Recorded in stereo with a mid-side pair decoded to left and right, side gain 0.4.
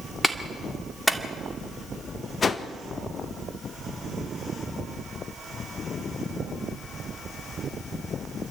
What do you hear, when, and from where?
0.2 s a clap: straight ahead, 2 m
2.4 s a whoosh: 40° left, 1.4 m